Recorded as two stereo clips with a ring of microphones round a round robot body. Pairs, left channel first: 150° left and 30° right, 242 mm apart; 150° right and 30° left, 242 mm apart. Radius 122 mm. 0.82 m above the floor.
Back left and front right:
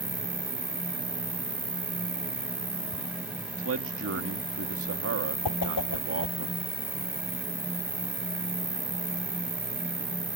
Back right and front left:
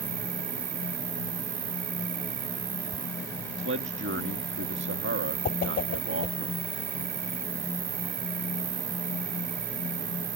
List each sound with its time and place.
0.0 s an insect: 50° left
3.6 s a man speaking: 5° right
5.5 s a whoosh: 155° left